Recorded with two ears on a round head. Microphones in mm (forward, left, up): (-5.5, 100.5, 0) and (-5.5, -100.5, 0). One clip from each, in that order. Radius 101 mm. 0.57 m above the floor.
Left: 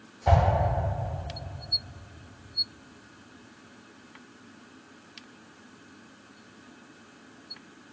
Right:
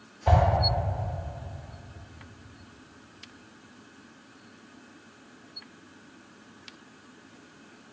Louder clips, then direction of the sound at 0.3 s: Even; 5° left (ahead or behind).